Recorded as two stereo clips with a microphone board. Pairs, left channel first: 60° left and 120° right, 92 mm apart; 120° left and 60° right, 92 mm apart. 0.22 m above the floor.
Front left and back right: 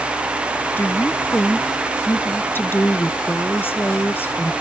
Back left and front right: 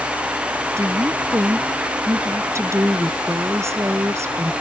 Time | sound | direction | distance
0.8 | a woman speaking | 5° right | ?